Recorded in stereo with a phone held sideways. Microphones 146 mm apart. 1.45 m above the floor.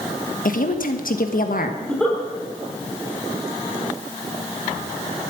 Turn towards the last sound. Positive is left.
turn(degrees=5)  # may be behind; listen again after turning